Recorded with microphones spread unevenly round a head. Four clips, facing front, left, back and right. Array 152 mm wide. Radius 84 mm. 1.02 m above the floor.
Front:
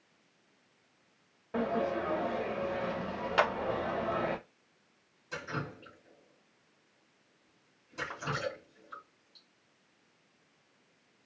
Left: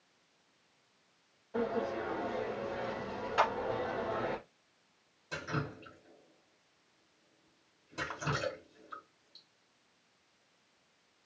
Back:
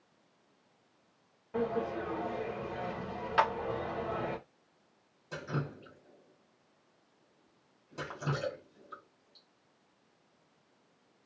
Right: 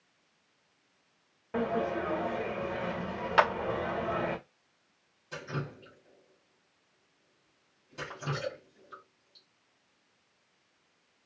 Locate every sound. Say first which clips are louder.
1.5 s a sliding door: right 3 dB, front 2 dB; 50° right, 0.8 m
3.4 s a clap: right 5 dB, even; 65° right, 0.5 m
5.3 s dripping: even, back 1 dB; 145° left, 1.2 m